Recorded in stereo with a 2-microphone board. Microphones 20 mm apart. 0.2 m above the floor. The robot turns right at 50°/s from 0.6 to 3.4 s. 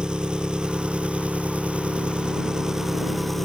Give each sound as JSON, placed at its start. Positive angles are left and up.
{"t": 0.0, "sound": "an engine running", "azimuth_deg": -140}